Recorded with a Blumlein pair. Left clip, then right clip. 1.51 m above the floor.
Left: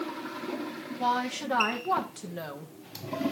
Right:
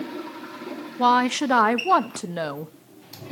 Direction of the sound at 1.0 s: 30° right.